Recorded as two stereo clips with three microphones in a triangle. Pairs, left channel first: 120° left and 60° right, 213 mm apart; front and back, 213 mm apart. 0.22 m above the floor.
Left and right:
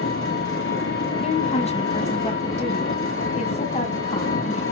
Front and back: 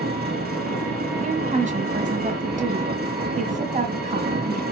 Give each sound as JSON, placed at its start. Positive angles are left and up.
{"t": 0.0, "sound": "an engine running", "azimuth_deg": 135, "distance_m": 3.5}
{"t": 1.2, "sound": "a woman speaking", "azimuth_deg": 155, "distance_m": 1.6}